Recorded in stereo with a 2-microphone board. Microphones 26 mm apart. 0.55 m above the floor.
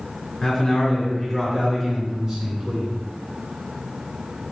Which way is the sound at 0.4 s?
15° left (ahead or behind).